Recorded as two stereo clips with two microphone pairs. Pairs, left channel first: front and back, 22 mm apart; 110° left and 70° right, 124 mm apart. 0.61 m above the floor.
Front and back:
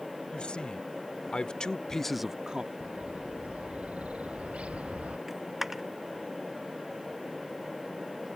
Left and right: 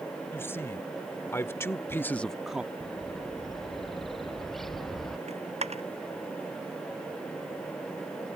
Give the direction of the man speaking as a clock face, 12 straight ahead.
11 o'clock.